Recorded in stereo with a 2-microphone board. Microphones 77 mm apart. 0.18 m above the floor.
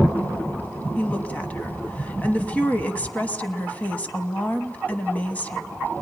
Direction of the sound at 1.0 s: 20° left (ahead or behind).